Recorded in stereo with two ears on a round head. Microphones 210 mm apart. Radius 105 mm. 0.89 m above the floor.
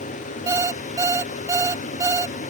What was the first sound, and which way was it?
An alarm clock, 15° right (ahead or behind).